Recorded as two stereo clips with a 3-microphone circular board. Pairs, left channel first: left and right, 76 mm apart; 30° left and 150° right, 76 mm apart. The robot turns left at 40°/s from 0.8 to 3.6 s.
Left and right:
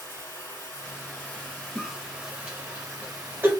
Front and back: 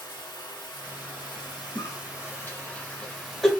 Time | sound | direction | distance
0.0 | running water | 40° left | 2.5 m
1.8 | a cough | 15° left | 1.4 m